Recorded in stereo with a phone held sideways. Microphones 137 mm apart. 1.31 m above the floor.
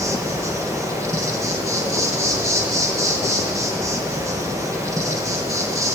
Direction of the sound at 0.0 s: 20° right (ahead or behind).